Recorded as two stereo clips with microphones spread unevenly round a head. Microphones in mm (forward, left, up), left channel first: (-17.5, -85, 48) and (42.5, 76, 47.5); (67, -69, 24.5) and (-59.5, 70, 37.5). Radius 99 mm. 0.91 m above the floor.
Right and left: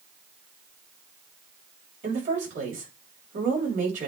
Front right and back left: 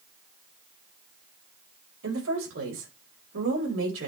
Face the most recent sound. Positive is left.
turn(degrees=115)